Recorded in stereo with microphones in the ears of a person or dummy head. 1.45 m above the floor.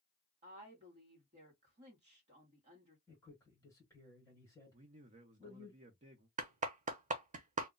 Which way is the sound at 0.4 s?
35° right (ahead or behind).